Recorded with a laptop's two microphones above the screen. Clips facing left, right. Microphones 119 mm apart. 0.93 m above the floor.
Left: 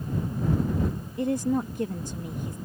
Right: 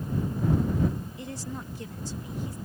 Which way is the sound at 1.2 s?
50° left (ahead or behind).